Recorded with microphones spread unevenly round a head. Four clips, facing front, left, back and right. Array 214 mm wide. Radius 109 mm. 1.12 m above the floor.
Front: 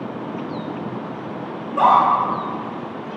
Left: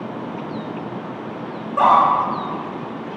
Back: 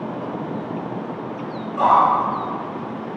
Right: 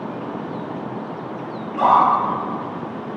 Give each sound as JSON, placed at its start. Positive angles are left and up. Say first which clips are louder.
{"t": 1.7, "sound": "a scream", "louder": "left 1 dB, front 1 dB", "azimuth_deg": 30, "distance_m": 4.5}